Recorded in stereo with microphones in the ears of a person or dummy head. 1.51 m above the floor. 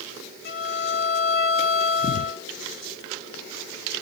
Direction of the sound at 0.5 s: 65° left (ahead or behind).